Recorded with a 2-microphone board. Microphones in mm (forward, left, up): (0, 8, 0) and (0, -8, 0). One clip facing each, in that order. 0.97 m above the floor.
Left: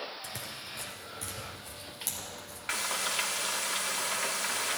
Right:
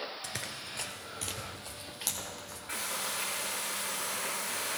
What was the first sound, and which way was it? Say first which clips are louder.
Running footsteps: right 1 dB; 20° right (ahead or behind).